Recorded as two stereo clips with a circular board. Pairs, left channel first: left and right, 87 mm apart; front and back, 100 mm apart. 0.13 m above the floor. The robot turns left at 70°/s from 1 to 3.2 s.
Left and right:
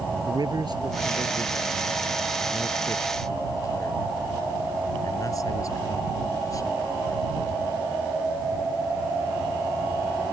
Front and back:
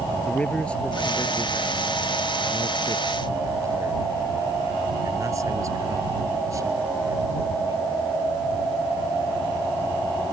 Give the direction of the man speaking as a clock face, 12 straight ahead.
3 o'clock.